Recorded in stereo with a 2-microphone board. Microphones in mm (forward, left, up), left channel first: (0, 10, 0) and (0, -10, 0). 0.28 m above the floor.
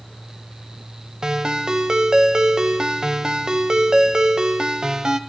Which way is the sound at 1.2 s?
35° right (ahead or behind).